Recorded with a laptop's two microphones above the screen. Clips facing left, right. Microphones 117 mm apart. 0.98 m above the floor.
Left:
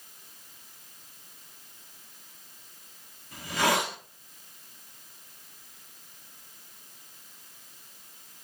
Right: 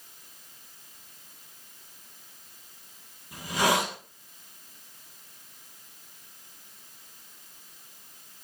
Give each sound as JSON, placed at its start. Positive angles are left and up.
{"t": 3.3, "sound": "a hiss", "side_deg": -15, "distance_m": 1.2}